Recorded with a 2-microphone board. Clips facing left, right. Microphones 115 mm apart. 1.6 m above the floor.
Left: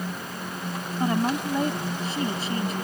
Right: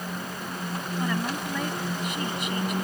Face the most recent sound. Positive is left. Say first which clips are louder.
# left 6 dB
turn(degrees=30)  # may be behind; listen again after turning